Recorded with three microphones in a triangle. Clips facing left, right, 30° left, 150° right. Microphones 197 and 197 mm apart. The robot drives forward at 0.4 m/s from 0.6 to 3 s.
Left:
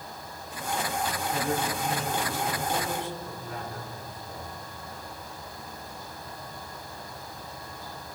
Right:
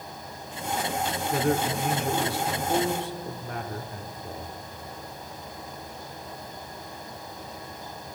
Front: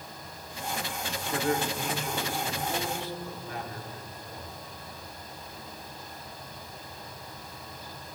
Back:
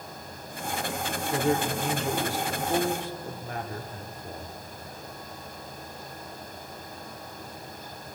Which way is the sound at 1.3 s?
80° right.